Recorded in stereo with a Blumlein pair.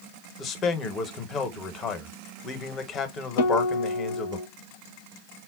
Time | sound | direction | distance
0.4 | a man speaking | 25° left | 0.8 m
3.4 | a guitar | 60° left | 0.6 m